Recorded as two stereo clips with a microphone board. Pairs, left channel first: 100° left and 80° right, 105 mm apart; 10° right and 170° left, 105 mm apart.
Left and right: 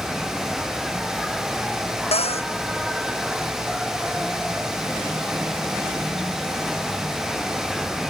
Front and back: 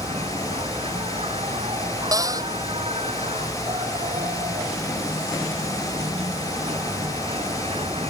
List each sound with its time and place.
0.0 s an insect: 170° right
2.1 s a cupboard door: 115° left